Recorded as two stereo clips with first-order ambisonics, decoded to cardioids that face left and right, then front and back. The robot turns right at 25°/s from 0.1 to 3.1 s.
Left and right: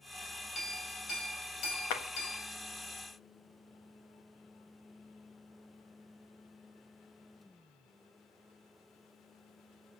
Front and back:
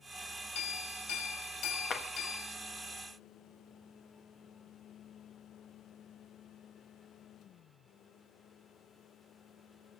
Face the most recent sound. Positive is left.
turn(degrees=95)